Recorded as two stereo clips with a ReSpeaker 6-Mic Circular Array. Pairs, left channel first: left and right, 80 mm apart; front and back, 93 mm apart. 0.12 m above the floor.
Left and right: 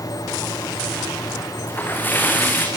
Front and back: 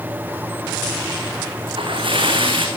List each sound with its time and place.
1.7 s a splash: 155° left, 5 m